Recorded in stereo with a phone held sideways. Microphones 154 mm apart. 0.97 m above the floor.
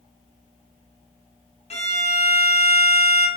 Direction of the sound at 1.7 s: 45° left (ahead or behind).